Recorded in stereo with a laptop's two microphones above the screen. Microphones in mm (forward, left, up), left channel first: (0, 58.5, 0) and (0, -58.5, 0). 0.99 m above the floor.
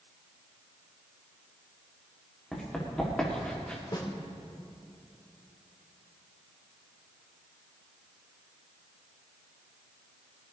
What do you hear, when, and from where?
2.5 s running footsteps: 5° left (ahead or behind), 6 m; by 3.8 s 10° left (ahead or behind), 6 m
3.9 s a snare drum: 45° left (ahead or behind), 2.0 m